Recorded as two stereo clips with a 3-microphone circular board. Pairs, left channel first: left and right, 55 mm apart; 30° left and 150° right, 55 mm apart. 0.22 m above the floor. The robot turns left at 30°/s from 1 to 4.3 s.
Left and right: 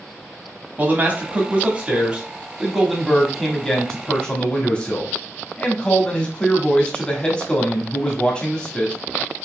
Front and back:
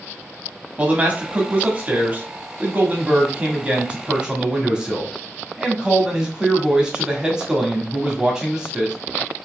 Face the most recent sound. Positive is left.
turn(degrees=150)